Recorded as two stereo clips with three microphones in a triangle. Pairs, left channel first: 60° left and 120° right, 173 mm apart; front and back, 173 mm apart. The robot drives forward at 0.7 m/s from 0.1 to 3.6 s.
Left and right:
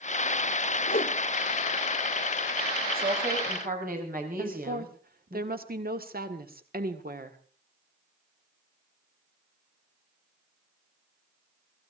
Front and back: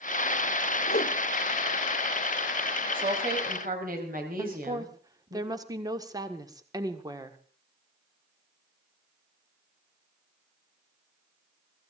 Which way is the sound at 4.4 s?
115° right.